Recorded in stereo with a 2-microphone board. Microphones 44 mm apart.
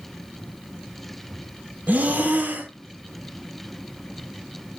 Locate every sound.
1.9 s breathing: 40° right (ahead or behind), 0.6 m